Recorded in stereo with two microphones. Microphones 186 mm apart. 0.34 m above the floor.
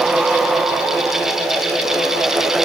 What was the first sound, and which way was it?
Only background noise.